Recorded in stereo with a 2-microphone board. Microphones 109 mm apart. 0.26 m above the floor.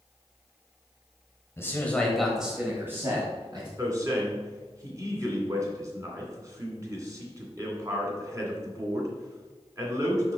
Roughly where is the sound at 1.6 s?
Left.